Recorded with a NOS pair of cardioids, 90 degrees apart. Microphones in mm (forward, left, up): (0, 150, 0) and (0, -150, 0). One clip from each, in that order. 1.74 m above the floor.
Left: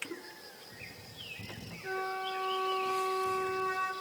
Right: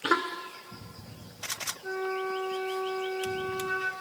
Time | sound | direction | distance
1.8 | a flute | 15° right | 6.5 m